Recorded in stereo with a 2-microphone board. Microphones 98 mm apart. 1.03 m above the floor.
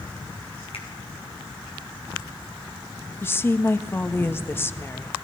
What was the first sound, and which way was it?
A finger snap, 85° left.